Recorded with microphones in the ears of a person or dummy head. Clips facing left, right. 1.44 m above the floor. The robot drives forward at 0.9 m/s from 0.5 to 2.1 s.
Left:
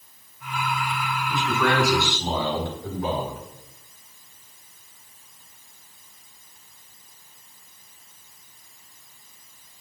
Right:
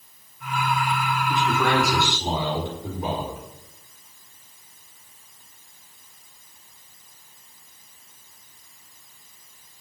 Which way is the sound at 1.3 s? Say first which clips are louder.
Even; 15° right (ahead or behind).